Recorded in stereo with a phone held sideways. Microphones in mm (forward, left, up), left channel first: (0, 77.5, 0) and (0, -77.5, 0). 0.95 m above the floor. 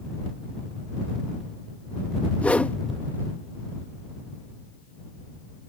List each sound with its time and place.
2.4 s a whoosh: 10° left (ahead or behind)